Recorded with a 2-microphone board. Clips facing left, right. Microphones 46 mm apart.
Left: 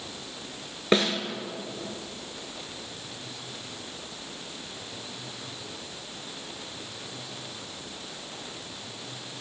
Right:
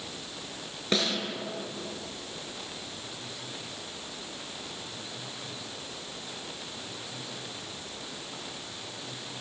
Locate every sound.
0.9 s a snare drum: 30° left (ahead or behind), 0.7 m